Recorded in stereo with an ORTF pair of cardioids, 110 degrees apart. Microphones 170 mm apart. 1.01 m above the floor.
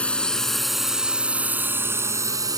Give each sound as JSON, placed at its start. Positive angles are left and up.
{"t": 0.0, "sound": "a drone", "azimuth_deg": 5}